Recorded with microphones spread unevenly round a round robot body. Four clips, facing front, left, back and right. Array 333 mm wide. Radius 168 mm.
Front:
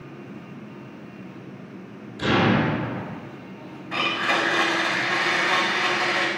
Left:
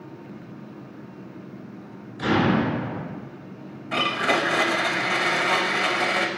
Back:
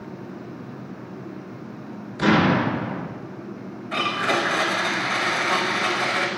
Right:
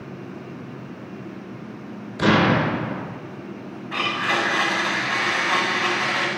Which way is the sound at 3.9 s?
95° left.